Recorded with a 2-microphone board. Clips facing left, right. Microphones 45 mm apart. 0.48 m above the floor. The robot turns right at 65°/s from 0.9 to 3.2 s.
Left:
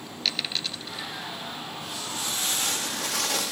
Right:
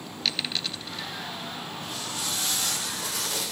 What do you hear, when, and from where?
0.2 s a dropped coin: centre (ahead or behind), 1.5 m; by 1.1 s 10° left (ahead or behind), 1.5 m
1.8 s footsteps: centre (ahead or behind), 6 m; by 3.5 s 85° left, 5 m